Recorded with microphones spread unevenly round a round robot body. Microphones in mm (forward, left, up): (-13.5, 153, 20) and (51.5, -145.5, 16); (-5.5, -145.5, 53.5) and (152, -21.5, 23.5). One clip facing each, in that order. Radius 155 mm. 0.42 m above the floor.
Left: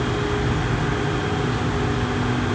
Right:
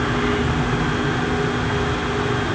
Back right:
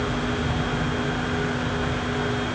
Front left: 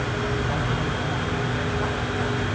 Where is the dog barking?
I don't hear a dog barking.